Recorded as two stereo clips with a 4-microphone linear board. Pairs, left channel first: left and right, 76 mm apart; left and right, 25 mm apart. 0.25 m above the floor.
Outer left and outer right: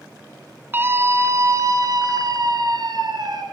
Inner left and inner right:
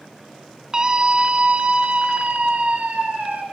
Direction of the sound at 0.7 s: 30° right (ahead or behind).